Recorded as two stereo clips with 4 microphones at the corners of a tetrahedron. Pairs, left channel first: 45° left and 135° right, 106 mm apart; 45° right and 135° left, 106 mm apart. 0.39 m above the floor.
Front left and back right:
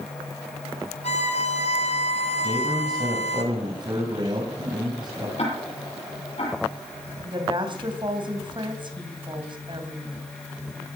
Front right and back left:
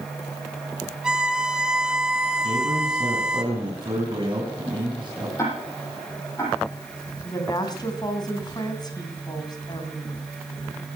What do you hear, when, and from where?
1.0 s a violin: 50° left, 1.6 m
2.4 s a man speaking: straight behind, 3 m
5.4 s ticking: 20° left, 8 m
7.2 s a woman speaking: 95° right, 3 m